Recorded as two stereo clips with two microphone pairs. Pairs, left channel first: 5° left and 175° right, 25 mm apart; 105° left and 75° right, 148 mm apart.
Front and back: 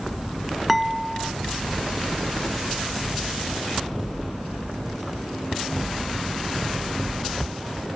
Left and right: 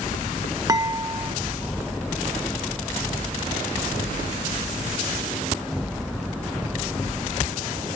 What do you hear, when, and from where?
0.7 s dishes clattering: 90° right